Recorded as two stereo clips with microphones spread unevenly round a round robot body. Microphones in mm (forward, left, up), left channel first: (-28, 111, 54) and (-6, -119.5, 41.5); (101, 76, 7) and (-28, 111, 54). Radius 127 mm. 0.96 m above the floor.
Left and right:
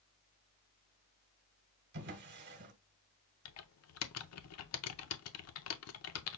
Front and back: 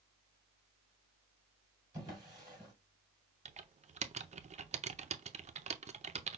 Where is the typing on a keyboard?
110° left, 0.6 m.